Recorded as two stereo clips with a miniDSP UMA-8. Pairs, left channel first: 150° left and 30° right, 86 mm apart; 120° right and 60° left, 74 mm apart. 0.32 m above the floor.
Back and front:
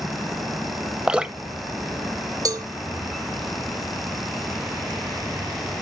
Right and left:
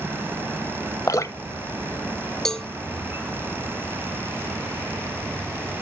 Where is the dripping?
105° right, 0.7 m.